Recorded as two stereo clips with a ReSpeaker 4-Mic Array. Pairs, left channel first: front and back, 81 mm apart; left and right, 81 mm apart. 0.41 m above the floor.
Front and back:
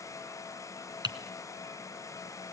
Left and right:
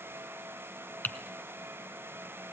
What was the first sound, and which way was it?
Typing on a keyboard, 160° left.